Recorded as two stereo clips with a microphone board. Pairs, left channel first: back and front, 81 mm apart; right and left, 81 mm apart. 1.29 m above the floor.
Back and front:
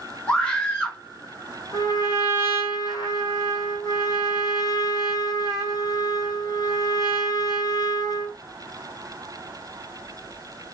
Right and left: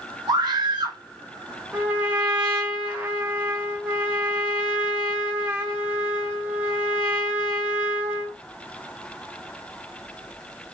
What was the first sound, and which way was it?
A scream, 105° left.